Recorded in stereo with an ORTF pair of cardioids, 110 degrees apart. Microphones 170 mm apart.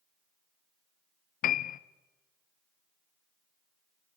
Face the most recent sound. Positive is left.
turn(degrees=55)